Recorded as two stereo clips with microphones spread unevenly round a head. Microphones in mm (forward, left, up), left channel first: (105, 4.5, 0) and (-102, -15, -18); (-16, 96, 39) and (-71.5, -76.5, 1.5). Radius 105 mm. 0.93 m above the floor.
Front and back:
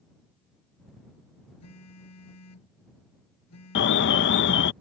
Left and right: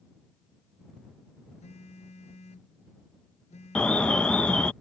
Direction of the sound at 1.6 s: 10° left.